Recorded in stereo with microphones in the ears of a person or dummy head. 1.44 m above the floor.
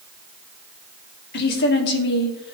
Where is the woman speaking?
65° left (ahead or behind), 2.5 m.